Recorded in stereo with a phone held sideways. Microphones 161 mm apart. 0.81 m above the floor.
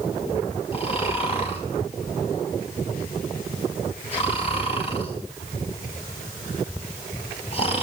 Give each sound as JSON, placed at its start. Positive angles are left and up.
{"t": 0.7, "sound": "snoring", "side_deg": 40, "distance_m": 6.0}